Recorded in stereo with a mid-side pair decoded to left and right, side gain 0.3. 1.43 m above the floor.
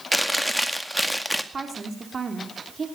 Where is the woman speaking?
50° right, 3.5 m.